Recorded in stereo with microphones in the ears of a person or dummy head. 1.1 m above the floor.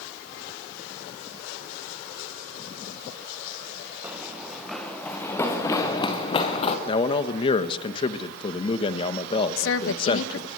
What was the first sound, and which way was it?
Running footsteps, 5° right (ahead or behind).